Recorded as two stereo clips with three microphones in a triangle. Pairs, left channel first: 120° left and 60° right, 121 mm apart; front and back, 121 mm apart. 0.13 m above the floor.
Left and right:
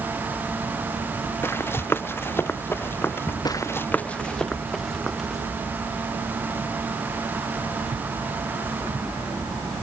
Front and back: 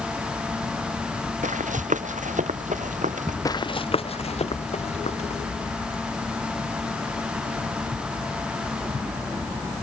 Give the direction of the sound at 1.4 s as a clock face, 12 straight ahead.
6 o'clock.